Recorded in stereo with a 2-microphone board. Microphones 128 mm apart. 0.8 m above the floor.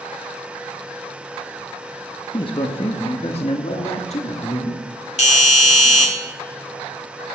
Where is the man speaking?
40° left (ahead or behind), 1.1 m; by 4.8 s 60° left (ahead or behind), 2.5 m.